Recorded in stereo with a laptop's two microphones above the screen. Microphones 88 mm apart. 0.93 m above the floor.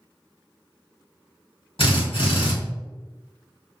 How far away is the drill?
About 1.5 m.